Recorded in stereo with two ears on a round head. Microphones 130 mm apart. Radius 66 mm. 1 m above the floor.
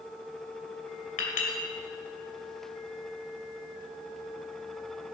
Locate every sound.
1.2 s a clink: 65° left (ahead or behind), 2.5 m